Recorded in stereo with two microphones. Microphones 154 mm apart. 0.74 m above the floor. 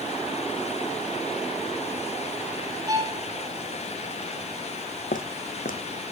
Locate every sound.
2.9 s a violin: 25° right (ahead or behind), 6 m
5.1 s footsteps: 65° left (ahead or behind), 1.9 m